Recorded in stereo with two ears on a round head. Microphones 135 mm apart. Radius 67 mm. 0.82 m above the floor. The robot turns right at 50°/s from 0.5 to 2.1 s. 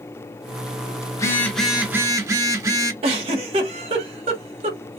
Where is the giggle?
40° right (ahead or behind), 1.0 m.